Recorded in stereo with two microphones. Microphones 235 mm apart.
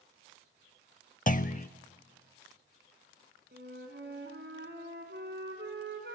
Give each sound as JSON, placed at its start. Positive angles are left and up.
{"t": 1.3, "sound": "a clunk", "side_deg": 35, "distance_m": 0.5}
{"t": 3.5, "sound": "a flute", "side_deg": -50, "distance_m": 2.5}